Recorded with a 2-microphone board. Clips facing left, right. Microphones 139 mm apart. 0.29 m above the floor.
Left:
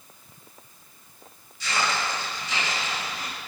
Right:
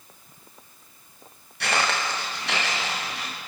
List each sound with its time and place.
1.6 s footsteps: 70° right (ahead or behind), 8 m; by 3.3 s 75° right (ahead or behind), 10.5 m